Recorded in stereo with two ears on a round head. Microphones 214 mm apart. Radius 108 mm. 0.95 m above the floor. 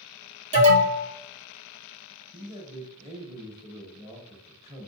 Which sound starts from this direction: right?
An alarm, at 0.5 s.